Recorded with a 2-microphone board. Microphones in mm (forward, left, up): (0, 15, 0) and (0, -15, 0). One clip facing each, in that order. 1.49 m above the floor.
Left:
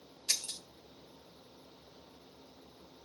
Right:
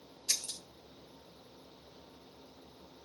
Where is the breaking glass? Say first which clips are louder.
Left 1 dB; 40° left (ahead or behind), 1.4 m.